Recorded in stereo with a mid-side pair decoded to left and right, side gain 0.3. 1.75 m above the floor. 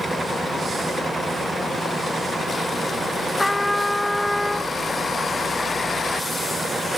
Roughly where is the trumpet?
Ahead.